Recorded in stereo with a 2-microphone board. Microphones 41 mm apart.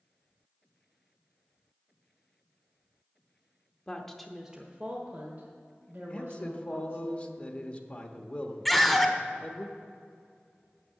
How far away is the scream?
About 1.2 m.